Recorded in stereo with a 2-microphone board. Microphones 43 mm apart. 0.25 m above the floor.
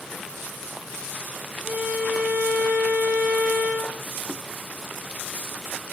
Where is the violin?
50° right (ahead or behind), 4 m.